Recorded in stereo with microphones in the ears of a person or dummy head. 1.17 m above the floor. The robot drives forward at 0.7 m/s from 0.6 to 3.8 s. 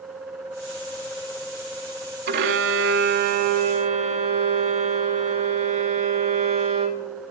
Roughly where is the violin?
Right.